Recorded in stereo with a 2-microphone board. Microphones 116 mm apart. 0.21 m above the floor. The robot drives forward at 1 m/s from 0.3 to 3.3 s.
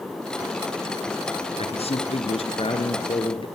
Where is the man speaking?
65° left (ahead or behind), 2.5 m; by 3.5 s 50° left (ahead or behind), 3 m.